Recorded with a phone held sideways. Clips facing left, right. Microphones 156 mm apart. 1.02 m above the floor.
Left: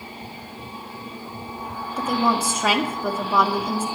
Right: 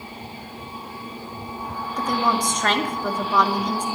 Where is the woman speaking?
10° left (ahead or behind), 2 m.